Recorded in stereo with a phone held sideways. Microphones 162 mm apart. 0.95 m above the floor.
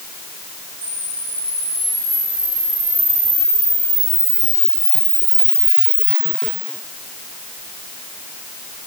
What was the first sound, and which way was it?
A camera shutter, 65° right (ahead or behind).